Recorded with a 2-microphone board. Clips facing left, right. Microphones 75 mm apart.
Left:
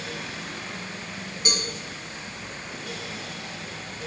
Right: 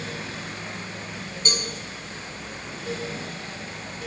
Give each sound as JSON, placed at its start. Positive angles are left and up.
{"t": 1.4, "sound": "a cowbell", "side_deg": 5, "distance_m": 3.0}